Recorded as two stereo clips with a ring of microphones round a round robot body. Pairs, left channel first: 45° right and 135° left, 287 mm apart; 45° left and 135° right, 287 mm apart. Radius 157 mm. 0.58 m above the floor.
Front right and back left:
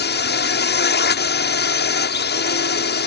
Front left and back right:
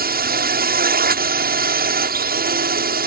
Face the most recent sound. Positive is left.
turn(degrees=-85)